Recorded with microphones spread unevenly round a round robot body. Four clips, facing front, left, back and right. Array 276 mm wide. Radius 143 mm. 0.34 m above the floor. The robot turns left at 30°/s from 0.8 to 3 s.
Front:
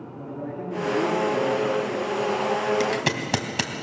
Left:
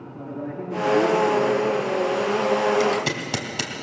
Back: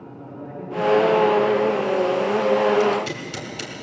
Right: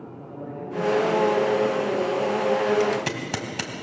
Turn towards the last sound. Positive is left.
turn(degrees=5)